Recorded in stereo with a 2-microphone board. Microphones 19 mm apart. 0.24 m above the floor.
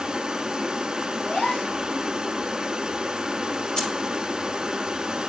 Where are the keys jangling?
40° left (ahead or behind), 3 m.